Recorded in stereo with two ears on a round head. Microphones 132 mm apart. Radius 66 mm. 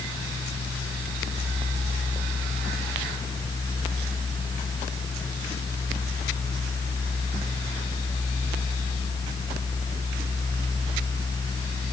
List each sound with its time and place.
Only background noise.